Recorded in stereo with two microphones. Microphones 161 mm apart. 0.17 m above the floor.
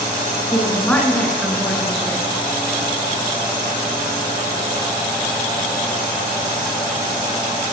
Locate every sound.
0.5 s a woman speaking: 15° left (ahead or behind), 1.5 m; by 2.2 s centre (ahead or behind), 2.5 m